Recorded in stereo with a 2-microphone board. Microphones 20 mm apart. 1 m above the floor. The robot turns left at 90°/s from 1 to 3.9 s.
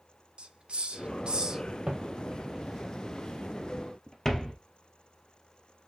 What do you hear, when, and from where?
0.4 s a hiss: 50° right (ahead or behind), 0.7 m; by 1.6 s 25° right (ahead or behind), 0.7 m
1.9 s footsteps: 50° right (ahead or behind), 2.0 m; by 4.5 s 25° left (ahead or behind), 1.6 m